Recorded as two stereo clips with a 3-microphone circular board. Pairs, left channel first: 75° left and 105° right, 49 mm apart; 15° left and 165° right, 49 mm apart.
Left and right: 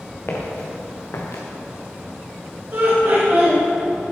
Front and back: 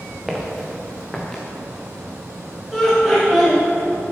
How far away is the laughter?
About 2.5 m.